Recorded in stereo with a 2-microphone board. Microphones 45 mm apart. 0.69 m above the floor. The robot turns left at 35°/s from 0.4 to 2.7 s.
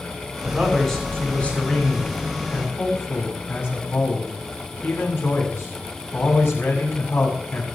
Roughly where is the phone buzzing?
No phone buzzing in this recording.